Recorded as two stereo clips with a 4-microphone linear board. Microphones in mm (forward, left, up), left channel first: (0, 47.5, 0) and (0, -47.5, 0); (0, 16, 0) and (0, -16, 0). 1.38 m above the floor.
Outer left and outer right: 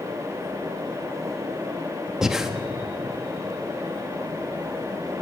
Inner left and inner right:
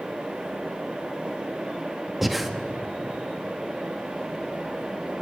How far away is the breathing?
About 1.2 m.